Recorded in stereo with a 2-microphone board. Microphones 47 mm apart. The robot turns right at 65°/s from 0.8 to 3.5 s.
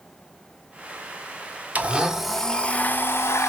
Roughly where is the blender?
Ahead right.